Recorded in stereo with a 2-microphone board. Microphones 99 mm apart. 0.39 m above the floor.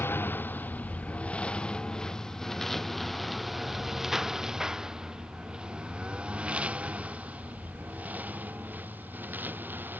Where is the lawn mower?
20° left (ahead or behind); by 10.0 s 20° right (ahead or behind).